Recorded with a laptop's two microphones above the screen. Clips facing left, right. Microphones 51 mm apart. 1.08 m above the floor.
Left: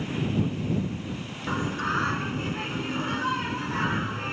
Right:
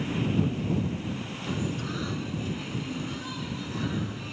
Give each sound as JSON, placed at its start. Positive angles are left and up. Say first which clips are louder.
{"t": 1.5, "sound": "singing", "louder": "left 5 dB", "side_deg": 55}